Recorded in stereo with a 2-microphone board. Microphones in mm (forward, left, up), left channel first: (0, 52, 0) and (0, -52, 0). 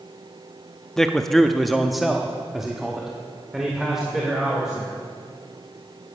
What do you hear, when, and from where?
1.0 s a man speaking: 5° left (ahead or behind), 0.8 m; by 5.0 s 5° right (ahead or behind), 3 m